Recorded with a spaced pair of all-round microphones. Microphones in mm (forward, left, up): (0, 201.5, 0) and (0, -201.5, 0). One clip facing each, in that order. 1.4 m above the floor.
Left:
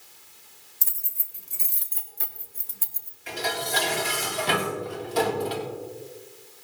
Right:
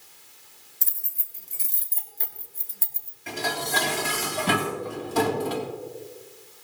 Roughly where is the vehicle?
No vehicle in this recording.